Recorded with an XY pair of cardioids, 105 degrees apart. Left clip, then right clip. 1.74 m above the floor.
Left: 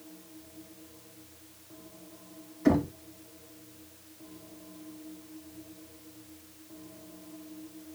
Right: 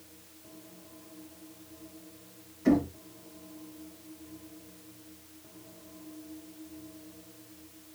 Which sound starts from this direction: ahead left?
Knocking, at 2.6 s.